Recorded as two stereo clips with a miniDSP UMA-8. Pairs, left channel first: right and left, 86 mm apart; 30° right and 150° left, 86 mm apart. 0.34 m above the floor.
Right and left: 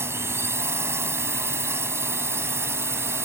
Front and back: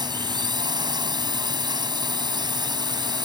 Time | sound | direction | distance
0.0 | a drone | 145° left | ?